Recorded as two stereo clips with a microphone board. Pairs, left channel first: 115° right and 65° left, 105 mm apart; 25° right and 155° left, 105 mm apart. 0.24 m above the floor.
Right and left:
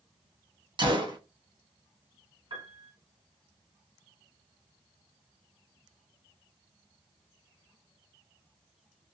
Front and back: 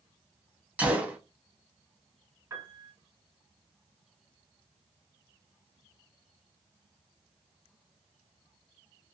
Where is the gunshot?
85° left, 0.8 m.